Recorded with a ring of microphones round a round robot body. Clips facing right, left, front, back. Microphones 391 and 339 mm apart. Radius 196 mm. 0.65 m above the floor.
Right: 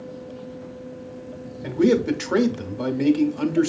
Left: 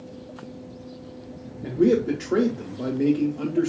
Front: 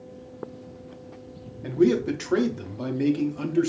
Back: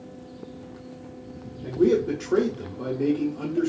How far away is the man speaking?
About 0.8 m.